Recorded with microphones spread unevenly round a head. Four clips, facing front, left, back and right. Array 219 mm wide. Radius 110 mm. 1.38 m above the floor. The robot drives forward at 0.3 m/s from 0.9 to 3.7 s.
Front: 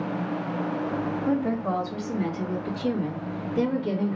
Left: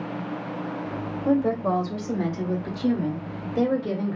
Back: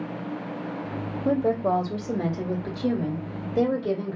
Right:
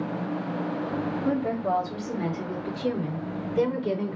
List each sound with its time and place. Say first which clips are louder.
1.2 s a woman speaking: left 5 dB, back 5 dB; 170° left, 1.5 m; by 4.2 s 175° left, 2.5 m